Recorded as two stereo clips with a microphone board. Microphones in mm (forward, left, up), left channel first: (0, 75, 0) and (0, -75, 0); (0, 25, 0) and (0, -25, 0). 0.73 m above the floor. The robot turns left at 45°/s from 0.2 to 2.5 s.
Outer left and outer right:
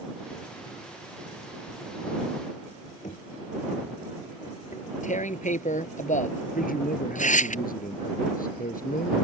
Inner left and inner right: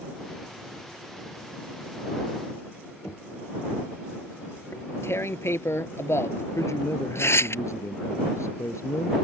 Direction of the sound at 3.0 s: 60° left (ahead or behind).